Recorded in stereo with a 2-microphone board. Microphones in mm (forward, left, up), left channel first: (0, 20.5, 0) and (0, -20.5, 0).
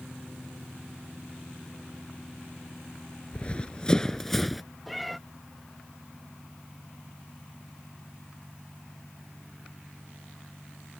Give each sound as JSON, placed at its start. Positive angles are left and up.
{"t": 3.3, "sound": "running footsteps", "side_deg": 30}
{"t": 4.9, "sound": "a cat meowing", "side_deg": 0}